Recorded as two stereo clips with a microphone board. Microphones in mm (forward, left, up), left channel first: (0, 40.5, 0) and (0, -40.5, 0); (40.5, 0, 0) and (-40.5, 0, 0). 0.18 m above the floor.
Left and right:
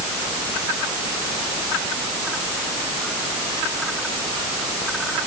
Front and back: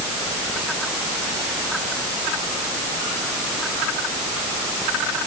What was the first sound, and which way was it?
Only background noise.